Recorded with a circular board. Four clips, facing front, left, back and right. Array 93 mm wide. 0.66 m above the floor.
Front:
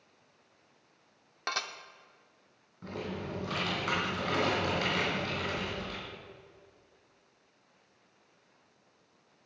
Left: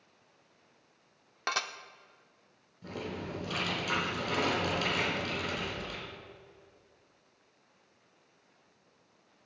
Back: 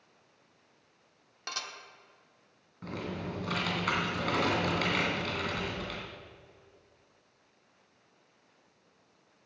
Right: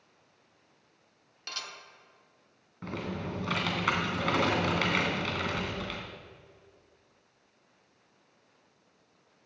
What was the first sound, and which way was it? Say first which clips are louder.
Dishes clattering: left 10 dB, front 5 dB; 65° left.